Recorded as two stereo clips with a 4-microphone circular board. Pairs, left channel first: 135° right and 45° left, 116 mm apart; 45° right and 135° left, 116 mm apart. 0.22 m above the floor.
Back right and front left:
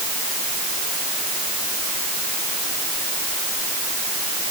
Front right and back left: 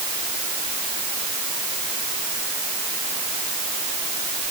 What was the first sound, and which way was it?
Only background noise.